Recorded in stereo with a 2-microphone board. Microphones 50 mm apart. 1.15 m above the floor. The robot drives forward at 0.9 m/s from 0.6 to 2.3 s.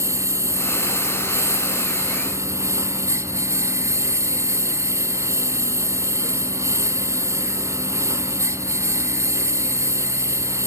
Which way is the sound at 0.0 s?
75° right (ahead or behind).